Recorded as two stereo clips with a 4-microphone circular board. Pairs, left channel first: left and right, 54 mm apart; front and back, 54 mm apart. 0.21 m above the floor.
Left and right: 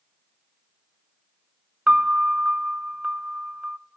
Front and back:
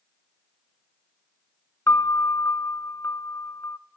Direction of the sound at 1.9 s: 25° right.